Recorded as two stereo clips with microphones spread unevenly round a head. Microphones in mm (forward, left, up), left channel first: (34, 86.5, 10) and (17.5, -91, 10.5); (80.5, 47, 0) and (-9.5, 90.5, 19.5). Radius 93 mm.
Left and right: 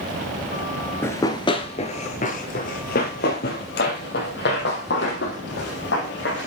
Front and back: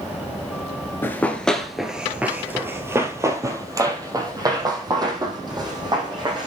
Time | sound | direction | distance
1.0 | running footsteps | 35° left | 1.3 m